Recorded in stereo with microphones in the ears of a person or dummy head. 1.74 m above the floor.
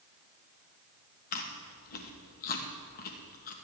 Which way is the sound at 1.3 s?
45° left (ahead or behind).